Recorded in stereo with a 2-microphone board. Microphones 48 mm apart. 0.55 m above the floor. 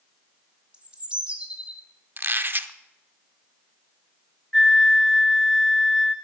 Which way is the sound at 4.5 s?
10° left (ahead or behind).